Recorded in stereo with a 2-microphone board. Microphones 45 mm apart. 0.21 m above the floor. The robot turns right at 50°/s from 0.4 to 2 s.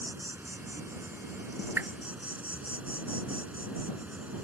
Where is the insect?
115° right; by 4.5 s 35° right.